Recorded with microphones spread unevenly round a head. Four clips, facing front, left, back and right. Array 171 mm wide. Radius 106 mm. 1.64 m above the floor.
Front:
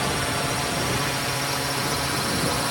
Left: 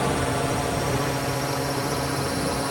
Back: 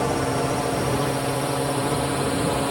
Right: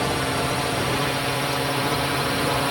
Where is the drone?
170° left; by 2.7 s 175° right.